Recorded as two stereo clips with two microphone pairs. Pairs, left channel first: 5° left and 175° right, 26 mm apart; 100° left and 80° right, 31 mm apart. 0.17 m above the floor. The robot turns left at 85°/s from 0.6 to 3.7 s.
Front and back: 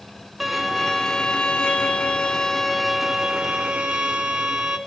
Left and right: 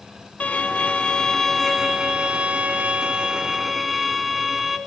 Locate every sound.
0.4 s a violin: 105° left, 0.9 m; by 4.8 s 160° right, 0.9 m